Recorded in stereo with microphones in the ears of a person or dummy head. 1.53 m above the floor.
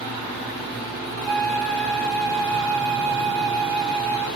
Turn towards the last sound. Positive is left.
turn(degrees=0)  # may be behind; listen again after turning